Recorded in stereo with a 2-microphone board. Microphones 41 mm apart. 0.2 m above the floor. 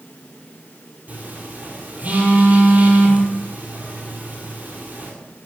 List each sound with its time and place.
1.1 s a phone buzzing: 40° right (ahead or behind), 3 m